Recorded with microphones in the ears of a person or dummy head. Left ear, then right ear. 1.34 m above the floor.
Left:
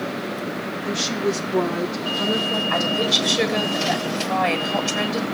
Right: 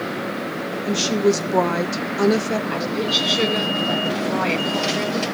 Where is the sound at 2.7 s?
30° left (ahead or behind), 3.5 m.